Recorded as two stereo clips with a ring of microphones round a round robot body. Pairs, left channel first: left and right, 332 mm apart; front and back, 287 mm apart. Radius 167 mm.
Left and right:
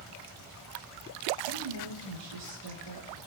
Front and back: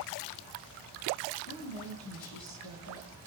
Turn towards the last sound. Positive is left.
turn(degrees=-55)